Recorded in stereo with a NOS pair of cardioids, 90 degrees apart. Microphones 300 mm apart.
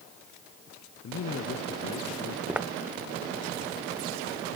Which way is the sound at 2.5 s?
5° right.